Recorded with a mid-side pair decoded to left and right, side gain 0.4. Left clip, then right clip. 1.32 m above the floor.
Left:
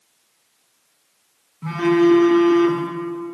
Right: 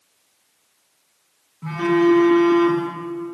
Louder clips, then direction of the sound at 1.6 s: Left 1 dB; 15° left.